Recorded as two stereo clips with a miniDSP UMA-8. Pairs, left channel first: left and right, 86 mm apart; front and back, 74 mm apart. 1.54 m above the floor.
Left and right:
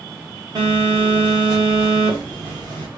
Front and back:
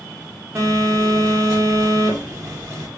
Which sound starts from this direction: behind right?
A phone buzzing, at 0.6 s.